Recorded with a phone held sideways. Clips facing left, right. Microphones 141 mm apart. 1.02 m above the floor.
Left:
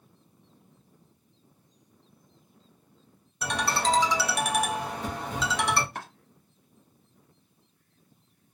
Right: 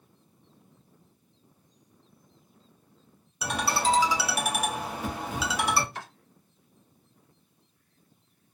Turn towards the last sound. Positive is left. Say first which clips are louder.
# left 1 dB
turn(degrees=50)  # may be behind; listen again after turning